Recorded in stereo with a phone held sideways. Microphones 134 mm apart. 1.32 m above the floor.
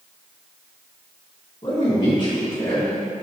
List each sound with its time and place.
1.6 s a man speaking: 40° left (ahead or behind), 2 m; by 3.0 s 25° left (ahead or behind), 2.5 m